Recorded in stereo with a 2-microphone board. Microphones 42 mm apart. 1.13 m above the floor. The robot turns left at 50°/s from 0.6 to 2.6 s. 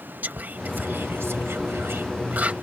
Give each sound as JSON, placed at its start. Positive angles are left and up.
{"t": 0.2, "sound": "whispering", "side_deg": -45}